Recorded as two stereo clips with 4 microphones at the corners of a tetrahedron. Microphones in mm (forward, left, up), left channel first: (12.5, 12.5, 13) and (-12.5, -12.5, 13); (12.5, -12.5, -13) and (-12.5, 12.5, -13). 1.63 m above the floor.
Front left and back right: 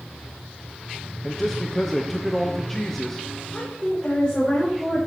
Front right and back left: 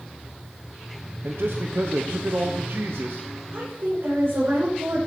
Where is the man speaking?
125° left, 1.0 m.